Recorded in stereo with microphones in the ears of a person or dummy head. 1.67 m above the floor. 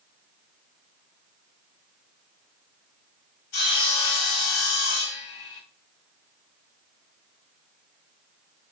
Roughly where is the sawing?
Left.